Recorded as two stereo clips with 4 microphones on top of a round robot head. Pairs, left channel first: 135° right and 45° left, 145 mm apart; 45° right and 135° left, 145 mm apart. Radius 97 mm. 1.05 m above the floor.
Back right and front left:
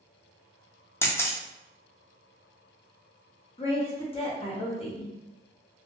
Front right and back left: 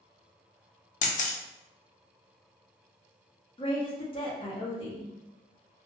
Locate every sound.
1.0 s a camera shutter: 65° right, 0.5 m
3.6 s a woman speaking: 90° right, 0.9 m